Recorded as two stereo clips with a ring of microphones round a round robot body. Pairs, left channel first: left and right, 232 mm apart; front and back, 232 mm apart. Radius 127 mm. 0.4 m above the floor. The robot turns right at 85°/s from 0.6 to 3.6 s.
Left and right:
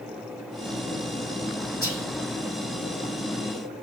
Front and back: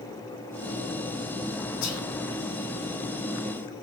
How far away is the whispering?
About 3.5 m.